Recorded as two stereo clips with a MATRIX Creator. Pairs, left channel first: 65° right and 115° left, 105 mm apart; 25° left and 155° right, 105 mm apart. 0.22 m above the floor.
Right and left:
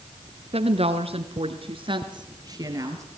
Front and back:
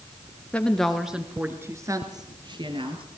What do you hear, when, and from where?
0.5 s a woman speaking: 100° left, 2.5 m; by 3.0 s 175° left, 3.5 m